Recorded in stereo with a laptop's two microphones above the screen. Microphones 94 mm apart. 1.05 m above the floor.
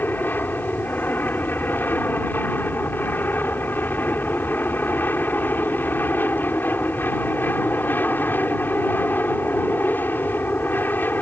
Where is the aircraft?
20° left (ahead or behind).